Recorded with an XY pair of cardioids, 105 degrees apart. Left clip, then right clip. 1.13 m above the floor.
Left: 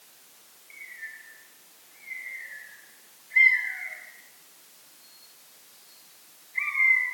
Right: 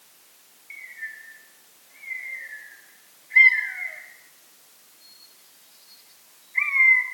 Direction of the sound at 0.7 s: 45° right.